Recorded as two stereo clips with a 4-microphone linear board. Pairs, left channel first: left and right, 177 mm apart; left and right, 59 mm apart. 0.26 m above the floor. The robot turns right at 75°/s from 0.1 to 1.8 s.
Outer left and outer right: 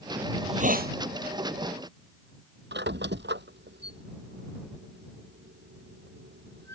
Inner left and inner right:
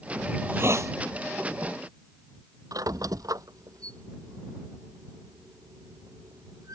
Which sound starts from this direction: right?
A squeak, at 2.7 s.